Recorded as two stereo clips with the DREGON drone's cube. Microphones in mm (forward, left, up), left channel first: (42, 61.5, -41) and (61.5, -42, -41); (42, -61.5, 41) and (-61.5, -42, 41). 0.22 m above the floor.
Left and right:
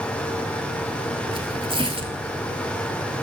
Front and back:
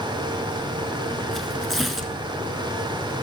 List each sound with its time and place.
1.3 s tearing paper: 100° right, 1.2 m